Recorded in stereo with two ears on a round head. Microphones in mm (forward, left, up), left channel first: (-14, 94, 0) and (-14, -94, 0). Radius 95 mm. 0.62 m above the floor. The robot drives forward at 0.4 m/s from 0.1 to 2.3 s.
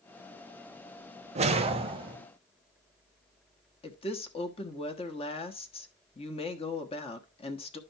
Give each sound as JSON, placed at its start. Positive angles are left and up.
{"t": 1.4, "sound": "a whoosh", "side_deg": -35, "distance_m": 0.9}
{"t": 3.8, "sound": "a woman speaking", "side_deg": 30, "distance_m": 1.1}